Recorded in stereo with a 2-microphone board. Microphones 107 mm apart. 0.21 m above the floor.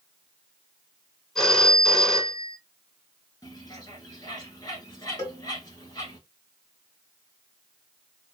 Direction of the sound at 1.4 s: 5° left (ahead or behind).